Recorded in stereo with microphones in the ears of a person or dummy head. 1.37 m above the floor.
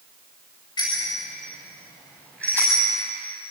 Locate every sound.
0.8 s a bicycle bell: 25° left (ahead or behind), 5.5 m; by 2.8 s 5° left (ahead or behind), 7 m